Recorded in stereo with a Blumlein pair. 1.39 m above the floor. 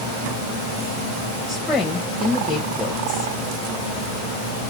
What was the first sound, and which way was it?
A woman speaking, 10° left.